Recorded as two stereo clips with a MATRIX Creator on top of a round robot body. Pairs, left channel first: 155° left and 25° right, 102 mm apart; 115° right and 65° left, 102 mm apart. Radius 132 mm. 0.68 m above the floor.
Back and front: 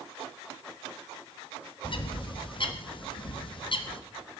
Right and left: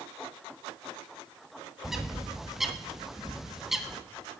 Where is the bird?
155° left, 1.4 m.